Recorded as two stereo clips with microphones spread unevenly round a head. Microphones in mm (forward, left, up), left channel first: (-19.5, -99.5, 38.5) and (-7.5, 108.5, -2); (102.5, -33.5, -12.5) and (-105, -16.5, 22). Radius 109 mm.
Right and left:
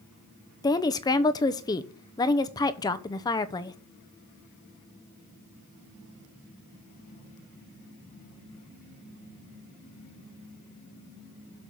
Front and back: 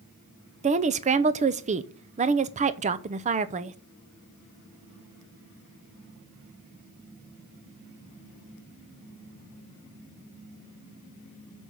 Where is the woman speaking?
150° right, 0.7 m.